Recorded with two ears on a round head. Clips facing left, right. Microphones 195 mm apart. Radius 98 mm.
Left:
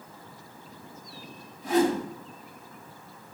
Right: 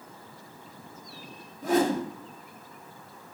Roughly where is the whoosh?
Right.